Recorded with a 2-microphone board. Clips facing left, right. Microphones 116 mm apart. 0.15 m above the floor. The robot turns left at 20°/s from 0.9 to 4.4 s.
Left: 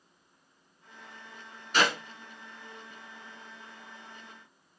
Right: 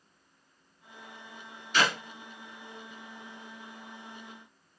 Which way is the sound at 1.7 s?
40° left (ahead or behind).